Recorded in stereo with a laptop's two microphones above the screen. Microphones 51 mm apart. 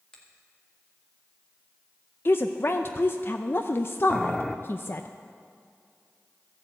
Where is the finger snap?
15° left (ahead or behind), 1.9 m.